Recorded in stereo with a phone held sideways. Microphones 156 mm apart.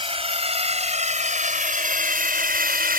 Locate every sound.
0.0 s a drone: 40° right (ahead or behind); by 3.0 s 85° right